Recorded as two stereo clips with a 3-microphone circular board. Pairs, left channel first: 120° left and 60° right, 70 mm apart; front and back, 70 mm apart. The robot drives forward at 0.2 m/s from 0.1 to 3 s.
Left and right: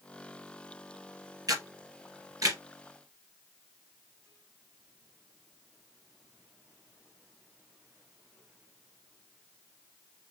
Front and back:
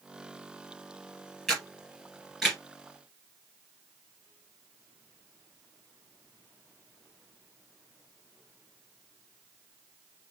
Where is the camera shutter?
85° right, 2.5 m; by 2.6 s 90° right, 2.5 m.